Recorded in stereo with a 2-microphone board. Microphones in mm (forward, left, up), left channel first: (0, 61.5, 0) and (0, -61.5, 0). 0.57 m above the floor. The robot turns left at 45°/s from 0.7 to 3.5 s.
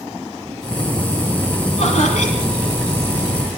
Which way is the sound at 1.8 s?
115° left.